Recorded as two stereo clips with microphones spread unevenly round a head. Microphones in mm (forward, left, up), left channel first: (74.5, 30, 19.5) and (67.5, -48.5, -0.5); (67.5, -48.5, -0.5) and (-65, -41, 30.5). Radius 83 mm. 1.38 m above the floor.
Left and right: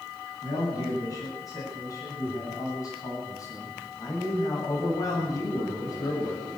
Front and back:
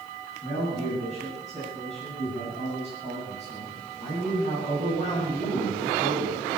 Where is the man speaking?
50° left, 10 m.